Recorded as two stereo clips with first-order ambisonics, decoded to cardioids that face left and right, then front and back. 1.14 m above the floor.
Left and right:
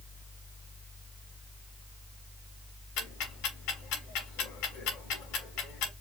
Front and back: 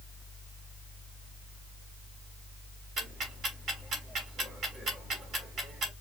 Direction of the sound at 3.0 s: 115° left.